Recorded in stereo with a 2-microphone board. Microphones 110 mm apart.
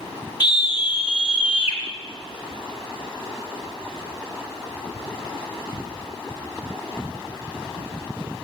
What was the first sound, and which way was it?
A scream, 45° left (ahead or behind).